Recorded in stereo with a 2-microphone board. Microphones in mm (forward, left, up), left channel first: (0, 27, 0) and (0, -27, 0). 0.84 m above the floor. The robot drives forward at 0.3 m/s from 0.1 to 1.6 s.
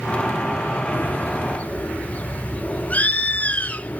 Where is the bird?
30° left (ahead or behind), 0.6 m; by 4.0 s 25° left (ahead or behind), 0.7 m.